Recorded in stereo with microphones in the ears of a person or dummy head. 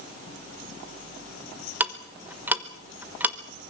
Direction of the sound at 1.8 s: 10° right (ahead or behind).